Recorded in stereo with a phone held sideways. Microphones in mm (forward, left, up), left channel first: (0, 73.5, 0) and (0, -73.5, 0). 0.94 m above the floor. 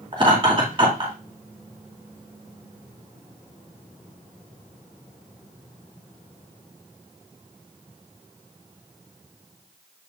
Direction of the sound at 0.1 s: 35° right (ahead or behind).